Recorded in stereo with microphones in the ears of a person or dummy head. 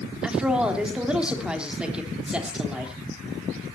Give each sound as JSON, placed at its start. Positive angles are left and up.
{"t": 0.2, "sound": "a woman speaking", "side_deg": -5, "distance_m": 3.0}